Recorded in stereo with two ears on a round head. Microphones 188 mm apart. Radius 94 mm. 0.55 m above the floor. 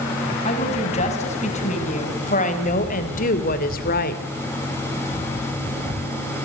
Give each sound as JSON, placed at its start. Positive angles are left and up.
{"t": 0.5, "sound": "a woman speaking", "side_deg": 35, "distance_m": 5.5}